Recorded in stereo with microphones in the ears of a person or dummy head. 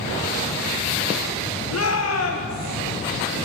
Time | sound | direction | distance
1.7 | a shout | 80° left | 1.7 m